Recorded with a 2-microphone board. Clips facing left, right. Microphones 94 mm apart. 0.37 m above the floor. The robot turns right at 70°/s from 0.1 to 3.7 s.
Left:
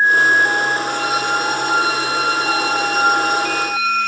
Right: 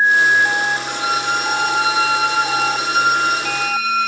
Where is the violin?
60° left, 1.9 m; by 4.1 s 100° right, 1.9 m.